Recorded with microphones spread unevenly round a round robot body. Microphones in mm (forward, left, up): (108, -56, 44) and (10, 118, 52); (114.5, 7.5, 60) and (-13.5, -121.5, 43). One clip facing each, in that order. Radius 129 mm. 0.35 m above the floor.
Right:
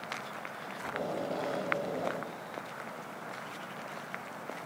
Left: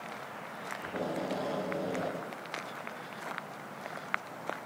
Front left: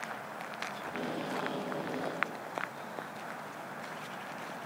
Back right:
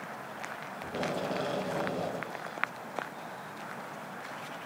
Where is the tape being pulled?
150° right, 2.5 m.